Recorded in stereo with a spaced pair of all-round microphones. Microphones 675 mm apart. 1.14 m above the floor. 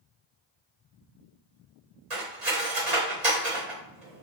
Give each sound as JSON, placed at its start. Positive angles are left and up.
{"t": 2.1, "sound": "cutlery clinking", "side_deg": -70, "distance_m": 1.3}